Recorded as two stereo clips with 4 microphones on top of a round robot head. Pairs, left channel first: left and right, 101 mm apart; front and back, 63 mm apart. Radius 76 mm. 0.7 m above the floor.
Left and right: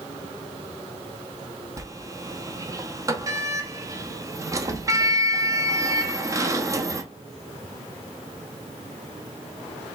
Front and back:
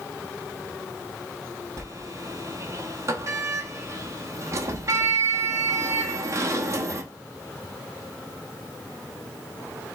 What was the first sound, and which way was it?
A sliding door, 145° right.